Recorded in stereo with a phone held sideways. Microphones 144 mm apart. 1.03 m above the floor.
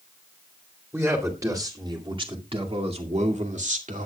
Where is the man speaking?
15° right (ahead or behind), 2.5 m; by 4.1 s 65° right (ahead or behind), 2.5 m.